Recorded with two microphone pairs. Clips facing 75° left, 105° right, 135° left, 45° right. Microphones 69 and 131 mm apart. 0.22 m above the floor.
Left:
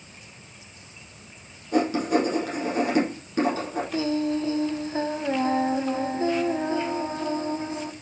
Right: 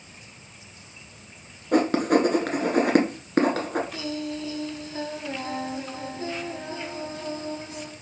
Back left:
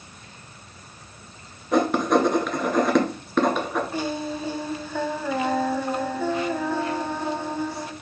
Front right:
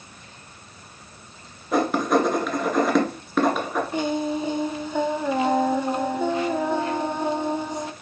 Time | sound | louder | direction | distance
1.7 | writing | right 2 dB, back left 1 dB | 130° right | 1.7 m
3.9 | singing | left 7 dB, front right 4 dB | 25° left | 0.6 m